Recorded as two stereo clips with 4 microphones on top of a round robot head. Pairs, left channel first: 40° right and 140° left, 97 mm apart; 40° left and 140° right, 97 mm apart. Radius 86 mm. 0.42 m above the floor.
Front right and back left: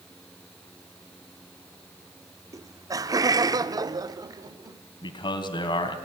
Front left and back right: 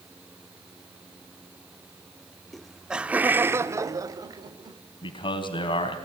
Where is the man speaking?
Straight ahead, 3 m.